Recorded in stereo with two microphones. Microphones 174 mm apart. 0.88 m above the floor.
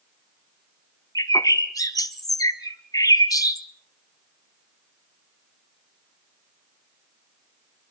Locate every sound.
1.1 s a bird: 20° left (ahead or behind), 1.3 m